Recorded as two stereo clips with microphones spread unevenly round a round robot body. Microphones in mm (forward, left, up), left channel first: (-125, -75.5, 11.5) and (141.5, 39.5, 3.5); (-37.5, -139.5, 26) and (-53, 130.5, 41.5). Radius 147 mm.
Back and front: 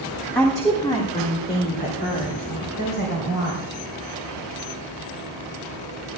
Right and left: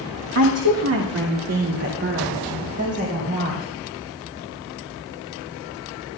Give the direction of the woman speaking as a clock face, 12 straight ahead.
8 o'clock.